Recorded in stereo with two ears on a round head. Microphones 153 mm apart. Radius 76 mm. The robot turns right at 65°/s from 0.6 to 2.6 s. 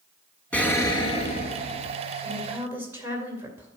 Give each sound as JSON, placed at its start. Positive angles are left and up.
{"t": 0.5, "sound": "an explosion", "azimuth_deg": 10, "distance_m": 0.8}
{"t": 2.2, "sound": "a woman speaking", "side_deg": 10, "distance_m": 2.0}